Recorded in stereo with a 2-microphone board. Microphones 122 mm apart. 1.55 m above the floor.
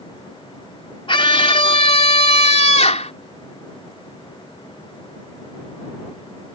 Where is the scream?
50° left (ahead or behind); by 3.1 s 70° left (ahead or behind).